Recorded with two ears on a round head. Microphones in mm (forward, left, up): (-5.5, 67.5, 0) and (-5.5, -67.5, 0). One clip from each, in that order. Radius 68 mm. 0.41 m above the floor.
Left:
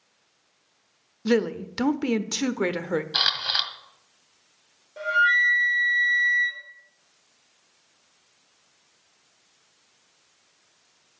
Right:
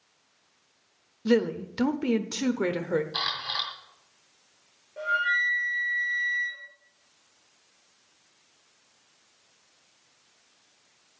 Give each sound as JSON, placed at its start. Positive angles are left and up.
{"t": 1.2, "sound": "a woman speaking", "side_deg": 25, "distance_m": 0.9}
{"t": 3.1, "sound": "a camera shutter", "side_deg": 60, "distance_m": 1.9}
{"t": 5.0, "sound": "a flute", "side_deg": 75, "distance_m": 7.0}